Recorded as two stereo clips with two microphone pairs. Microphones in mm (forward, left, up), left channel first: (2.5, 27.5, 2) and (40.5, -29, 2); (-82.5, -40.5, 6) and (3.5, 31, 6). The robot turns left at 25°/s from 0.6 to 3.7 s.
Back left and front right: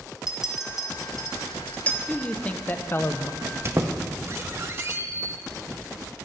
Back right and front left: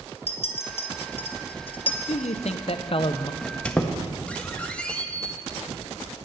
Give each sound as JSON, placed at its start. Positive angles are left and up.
{"t": 0.3, "sound": "a clink", "azimuth_deg": -135, "distance_m": 1.1}
{"t": 2.1, "sound": "a man speaking", "azimuth_deg": -155, "distance_m": 0.5}
{"t": 3.4, "sound": "a squeak", "azimuth_deg": -65, "distance_m": 0.7}